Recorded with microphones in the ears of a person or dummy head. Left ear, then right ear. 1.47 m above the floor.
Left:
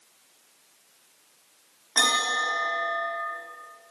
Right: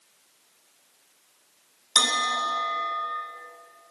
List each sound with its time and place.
1.9 s a bell: 70° right (ahead or behind), 5.5 m